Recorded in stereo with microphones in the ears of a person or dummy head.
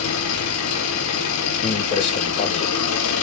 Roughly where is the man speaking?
Left.